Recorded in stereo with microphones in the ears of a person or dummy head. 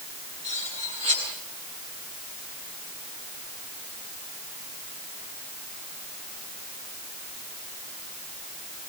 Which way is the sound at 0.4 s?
30° right (ahead or behind).